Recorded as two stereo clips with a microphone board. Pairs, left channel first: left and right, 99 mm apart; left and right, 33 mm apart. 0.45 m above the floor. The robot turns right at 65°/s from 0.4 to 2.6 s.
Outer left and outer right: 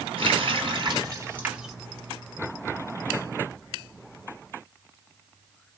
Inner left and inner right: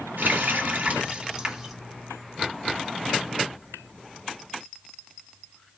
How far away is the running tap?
About 1.4 m.